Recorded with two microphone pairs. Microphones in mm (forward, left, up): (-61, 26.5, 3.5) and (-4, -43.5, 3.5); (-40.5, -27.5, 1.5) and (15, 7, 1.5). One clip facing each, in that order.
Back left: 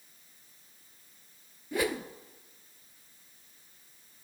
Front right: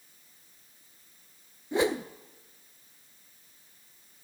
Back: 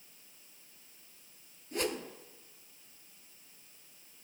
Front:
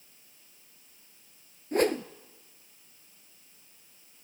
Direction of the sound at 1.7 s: 5° left.